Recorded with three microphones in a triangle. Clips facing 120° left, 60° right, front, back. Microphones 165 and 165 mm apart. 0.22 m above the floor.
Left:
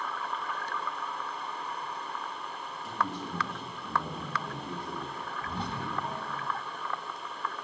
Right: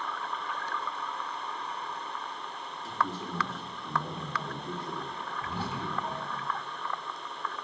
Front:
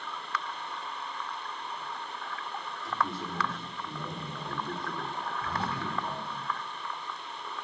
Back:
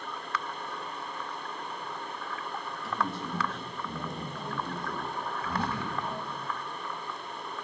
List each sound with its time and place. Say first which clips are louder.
2.8 s a man speaking: right 1 dB, even; 165° right, 3.5 m
5.4 s whispering: right 1 dB, back 2 dB; 20° left, 1.4 m